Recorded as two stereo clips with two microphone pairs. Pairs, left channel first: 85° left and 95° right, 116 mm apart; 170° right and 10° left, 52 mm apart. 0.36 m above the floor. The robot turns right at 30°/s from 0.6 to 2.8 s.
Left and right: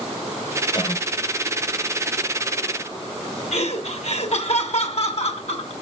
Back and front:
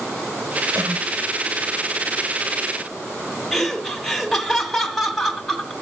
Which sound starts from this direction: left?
Laughter, at 3.5 s.